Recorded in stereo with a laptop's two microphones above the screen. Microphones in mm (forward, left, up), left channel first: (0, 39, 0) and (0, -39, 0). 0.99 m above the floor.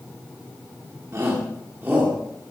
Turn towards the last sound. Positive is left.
turn(degrees=-20)  # may be behind; listen again after turning